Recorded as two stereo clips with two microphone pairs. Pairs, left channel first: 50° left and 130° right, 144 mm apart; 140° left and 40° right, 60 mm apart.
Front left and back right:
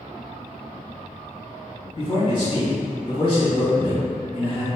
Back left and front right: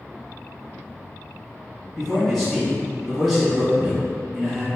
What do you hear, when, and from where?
2.0 s a man speaking: 45° left, 1.6 m